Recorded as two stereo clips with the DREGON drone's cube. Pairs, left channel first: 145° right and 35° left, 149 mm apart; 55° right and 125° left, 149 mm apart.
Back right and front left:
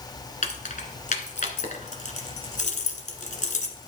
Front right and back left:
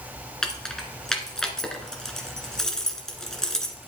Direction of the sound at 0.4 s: 140° right.